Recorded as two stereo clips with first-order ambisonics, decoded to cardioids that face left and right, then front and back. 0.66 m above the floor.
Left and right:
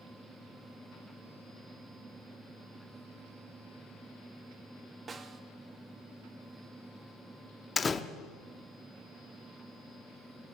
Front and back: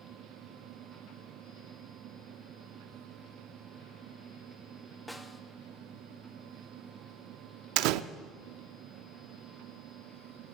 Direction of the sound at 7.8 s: 165° left.